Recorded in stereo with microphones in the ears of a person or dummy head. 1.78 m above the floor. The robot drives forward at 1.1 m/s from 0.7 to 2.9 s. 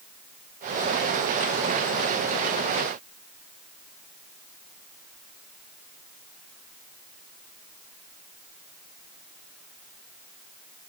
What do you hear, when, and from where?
Only background noise.